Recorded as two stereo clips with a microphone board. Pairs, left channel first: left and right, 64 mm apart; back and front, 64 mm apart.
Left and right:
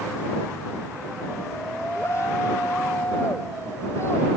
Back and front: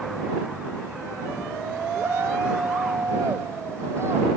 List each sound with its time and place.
1.9 s a shout: 45° left